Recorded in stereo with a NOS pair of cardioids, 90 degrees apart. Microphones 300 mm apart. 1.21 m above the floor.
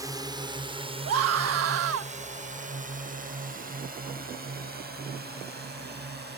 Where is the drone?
10° right; by 6.4 s 35° right.